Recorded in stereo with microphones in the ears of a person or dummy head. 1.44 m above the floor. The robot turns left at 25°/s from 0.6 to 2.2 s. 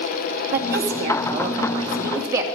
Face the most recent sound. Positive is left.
turn(degrees=-165)